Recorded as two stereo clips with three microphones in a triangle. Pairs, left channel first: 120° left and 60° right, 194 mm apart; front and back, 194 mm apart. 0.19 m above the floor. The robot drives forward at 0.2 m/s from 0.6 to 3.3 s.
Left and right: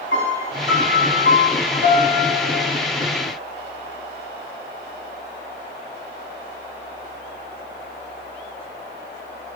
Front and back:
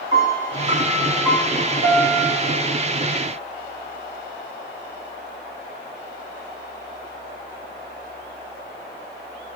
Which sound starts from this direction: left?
A piano, at 0.1 s.